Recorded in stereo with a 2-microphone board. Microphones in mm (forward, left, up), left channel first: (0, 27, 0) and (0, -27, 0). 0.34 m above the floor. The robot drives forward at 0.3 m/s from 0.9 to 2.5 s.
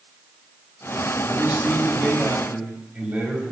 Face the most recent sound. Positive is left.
turn(degrees=-30)  # may be behind; listen again after turning